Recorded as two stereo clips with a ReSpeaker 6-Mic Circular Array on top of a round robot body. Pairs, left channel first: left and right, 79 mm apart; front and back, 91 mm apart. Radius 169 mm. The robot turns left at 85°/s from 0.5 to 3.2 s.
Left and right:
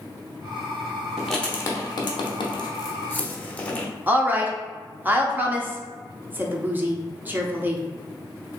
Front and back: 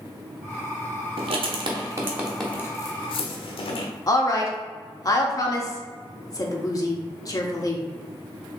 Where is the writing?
170° right, 0.7 m; by 3.9 s 20° left, 0.7 m.